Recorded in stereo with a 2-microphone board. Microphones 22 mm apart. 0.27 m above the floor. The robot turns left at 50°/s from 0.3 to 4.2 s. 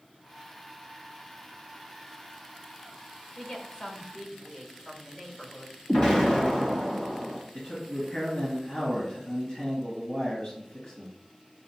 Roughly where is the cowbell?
I don't hear a cowbell.